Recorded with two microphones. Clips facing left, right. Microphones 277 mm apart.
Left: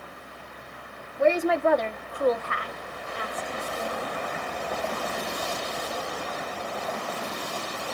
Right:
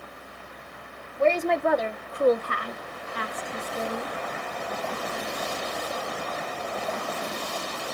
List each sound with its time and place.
1.2 s a woman speaking: 15° left (ahead or behind), 0.8 m; by 4.2 s 80° right, 1.1 m